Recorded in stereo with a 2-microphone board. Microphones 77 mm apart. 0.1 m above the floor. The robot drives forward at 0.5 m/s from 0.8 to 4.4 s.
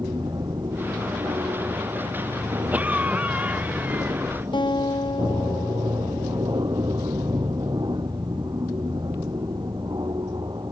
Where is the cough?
20° right (ahead or behind).